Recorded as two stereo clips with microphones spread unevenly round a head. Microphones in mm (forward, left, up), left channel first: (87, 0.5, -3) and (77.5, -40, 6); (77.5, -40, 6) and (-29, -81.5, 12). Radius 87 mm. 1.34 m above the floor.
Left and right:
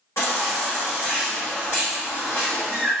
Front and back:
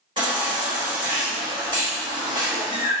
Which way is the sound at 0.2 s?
135° left.